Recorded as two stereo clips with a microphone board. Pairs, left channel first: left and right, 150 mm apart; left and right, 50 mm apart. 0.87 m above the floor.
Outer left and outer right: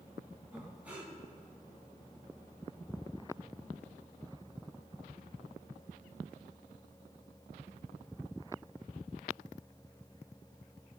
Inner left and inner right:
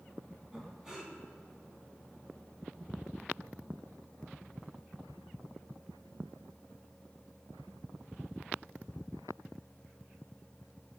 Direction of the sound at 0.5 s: 10° right (ahead or behind).